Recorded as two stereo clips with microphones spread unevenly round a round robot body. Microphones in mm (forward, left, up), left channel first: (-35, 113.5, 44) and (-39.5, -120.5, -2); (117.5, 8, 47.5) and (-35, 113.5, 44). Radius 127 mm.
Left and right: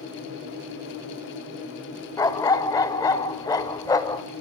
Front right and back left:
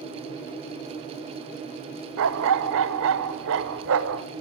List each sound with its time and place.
2.2 s a dog barking: 165° left, 1.5 m